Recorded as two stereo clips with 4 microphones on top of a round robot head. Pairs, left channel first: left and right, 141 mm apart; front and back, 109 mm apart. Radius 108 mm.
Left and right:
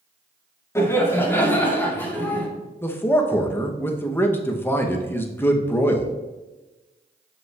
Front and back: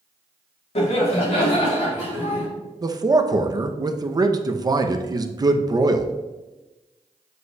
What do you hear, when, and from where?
0.8 s laughter: 20° left, 1.7 m; by 2.5 s 10° left, 2.5 m
2.8 s a man speaking: 155° left, 0.7 m